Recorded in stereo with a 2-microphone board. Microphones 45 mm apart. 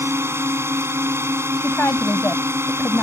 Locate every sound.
0.0 s a drone: 70° right (ahead or behind)
1.6 s a woman speaking: 55° left (ahead or behind)